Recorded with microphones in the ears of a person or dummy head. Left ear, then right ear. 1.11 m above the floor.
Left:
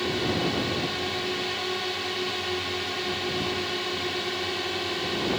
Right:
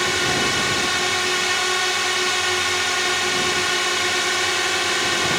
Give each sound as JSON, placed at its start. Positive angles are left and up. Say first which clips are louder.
{"t": 0.0, "sound": "a drone", "louder": "right 7 dB", "side_deg": -50}